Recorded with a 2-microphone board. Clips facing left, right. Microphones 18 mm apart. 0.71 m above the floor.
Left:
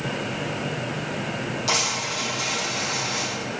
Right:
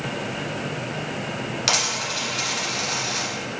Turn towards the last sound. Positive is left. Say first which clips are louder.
# right 2 dB
turn(degrees=-50)  # may be behind; listen again after turning